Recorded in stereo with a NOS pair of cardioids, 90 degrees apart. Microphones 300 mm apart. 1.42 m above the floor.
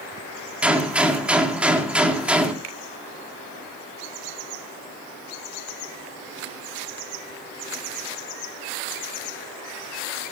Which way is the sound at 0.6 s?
5° right.